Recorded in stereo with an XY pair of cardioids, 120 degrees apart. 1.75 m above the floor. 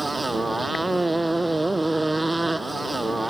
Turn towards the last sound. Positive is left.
turn(degrees=-15)